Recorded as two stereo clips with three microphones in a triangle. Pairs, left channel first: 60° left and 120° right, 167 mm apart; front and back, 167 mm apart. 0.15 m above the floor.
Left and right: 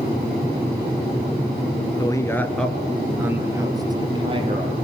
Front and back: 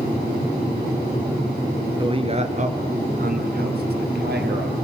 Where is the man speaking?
125° left, 1.9 m; by 4.7 s 175° right, 3.5 m.